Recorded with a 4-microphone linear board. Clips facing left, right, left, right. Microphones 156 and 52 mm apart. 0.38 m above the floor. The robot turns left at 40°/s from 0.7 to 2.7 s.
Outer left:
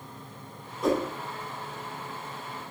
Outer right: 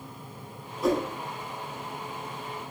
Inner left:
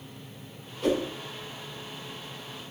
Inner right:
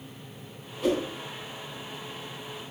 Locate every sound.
0.8 s a whoosh: 5° right (ahead or behind), 0.8 m; by 1.0 s 5° left (ahead or behind), 0.8 m